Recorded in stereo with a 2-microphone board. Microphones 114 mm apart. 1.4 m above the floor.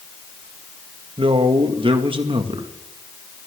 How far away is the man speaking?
About 2 m.